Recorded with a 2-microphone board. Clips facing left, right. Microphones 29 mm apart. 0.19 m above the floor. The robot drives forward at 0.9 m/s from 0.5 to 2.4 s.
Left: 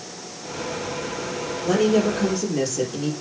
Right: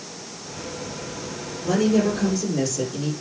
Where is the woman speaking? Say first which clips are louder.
Left 1 dB; 25° left (ahead or behind), 4.5 m; by 3.1 s 20° left (ahead or behind), 5 m.